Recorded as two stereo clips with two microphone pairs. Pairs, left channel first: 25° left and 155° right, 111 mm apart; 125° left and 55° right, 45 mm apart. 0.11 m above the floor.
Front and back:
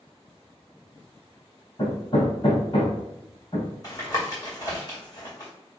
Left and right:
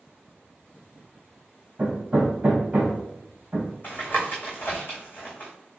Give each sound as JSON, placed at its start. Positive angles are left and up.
{"t": 1.8, "sound": "hammering", "azimuth_deg": -5, "distance_m": 1.9}
{"t": 3.8, "sound": "tapping", "azimuth_deg": 80, "distance_m": 2.5}